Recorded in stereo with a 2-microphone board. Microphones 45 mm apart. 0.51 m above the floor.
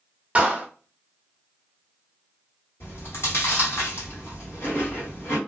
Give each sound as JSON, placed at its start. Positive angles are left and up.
{"t": 0.3, "sound": "a clap", "side_deg": -30, "distance_m": 1.0}
{"t": 2.8, "sound": "chewing", "side_deg": 60, "distance_m": 1.9}